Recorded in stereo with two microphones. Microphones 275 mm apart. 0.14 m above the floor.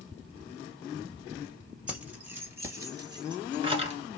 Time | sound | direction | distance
1.9 | keys jangling | 5° right (ahead or behind) | 2 m